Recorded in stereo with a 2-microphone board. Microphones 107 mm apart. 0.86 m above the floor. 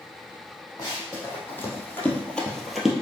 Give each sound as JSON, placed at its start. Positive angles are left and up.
{"t": 0.8, "sound": "running footsteps", "side_deg": 30, "distance_m": 2.5}